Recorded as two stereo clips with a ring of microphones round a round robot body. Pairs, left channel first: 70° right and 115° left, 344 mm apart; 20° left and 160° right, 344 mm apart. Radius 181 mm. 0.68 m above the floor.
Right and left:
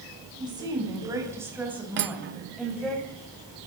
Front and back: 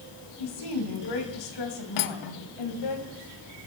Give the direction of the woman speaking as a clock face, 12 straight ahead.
11 o'clock.